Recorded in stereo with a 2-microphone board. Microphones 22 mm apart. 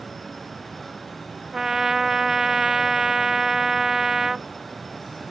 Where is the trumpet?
20° right (ahead or behind).